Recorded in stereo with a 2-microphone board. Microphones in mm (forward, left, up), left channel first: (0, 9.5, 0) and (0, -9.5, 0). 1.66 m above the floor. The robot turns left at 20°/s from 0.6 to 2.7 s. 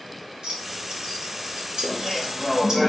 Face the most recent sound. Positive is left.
turn(degrees=5)  # may be behind; listen again after turning